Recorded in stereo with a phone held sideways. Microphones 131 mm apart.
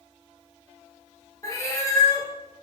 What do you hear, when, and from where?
1.4 s a cat meowing: 20° left (ahead or behind), 0.7 m